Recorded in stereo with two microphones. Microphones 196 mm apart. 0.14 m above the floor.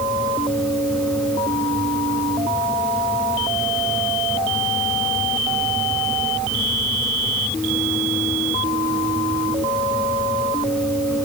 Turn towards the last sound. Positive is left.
No sound to turn to.